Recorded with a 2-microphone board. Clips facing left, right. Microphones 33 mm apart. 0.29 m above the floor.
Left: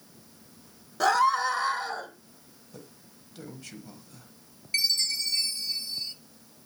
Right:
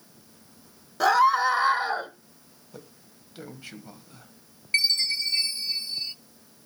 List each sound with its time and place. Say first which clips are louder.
1.0 s a scream: right 3 dB; 10° right (ahead or behind), 1.1 m; by 2.1 s 35° right (ahead or behind), 1.1 m
2.7 s a man speaking: right 2 dB; 25° right (ahead or behind), 2.0 m
4.7 s a chime: right 3 dB; 35° right (ahead or behind), 0.7 m